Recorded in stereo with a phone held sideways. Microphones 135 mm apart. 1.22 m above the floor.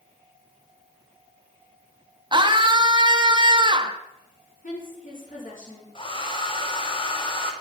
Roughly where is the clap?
I don't hear a clap.